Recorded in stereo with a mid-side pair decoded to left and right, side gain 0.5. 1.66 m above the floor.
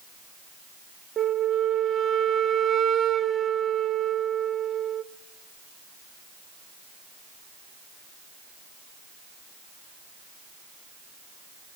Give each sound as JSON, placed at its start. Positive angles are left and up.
{"t": 1.2, "sound": "a flute", "azimuth_deg": -45, "distance_m": 1.1}